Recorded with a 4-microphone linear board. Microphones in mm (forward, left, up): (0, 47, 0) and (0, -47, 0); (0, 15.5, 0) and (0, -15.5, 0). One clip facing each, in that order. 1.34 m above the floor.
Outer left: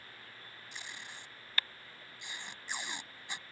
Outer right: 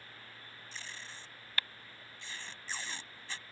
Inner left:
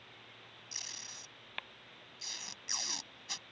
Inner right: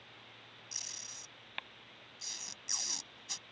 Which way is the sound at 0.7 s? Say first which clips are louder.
Even, inner left 1 dB; 20° left (ahead or behind).